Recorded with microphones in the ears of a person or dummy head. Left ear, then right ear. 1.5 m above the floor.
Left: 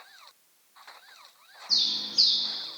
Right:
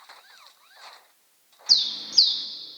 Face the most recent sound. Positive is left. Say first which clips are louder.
# right 5 dB
turn(degrees=-30)  # may be behind; listen again after turning